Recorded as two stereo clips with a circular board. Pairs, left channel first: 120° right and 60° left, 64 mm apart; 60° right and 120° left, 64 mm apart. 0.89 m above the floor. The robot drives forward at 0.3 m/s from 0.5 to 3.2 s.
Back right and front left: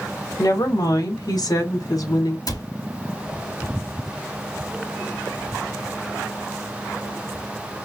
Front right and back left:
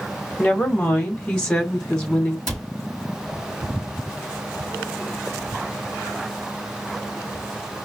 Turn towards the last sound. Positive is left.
turn(degrees=-150)